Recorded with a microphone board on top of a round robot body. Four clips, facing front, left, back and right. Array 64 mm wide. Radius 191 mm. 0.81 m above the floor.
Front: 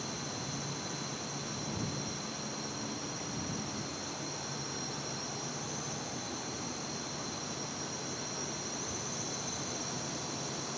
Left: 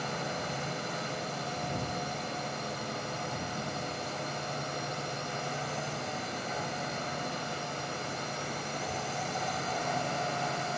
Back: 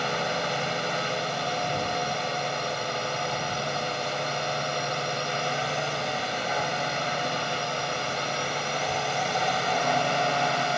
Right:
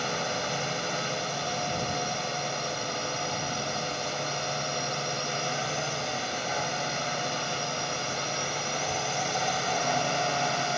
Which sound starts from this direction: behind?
A drone, at 0.0 s.